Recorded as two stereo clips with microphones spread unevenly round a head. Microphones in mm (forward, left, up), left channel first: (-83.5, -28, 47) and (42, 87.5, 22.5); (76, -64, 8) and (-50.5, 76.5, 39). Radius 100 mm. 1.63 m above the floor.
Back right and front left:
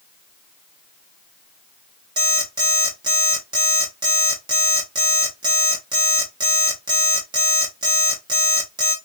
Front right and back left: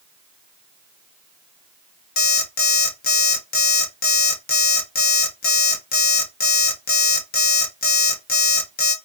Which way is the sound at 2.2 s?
25° right.